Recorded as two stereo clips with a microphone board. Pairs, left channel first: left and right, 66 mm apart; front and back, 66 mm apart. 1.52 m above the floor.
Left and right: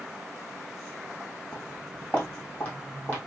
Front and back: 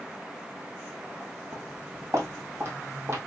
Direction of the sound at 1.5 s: 155° left.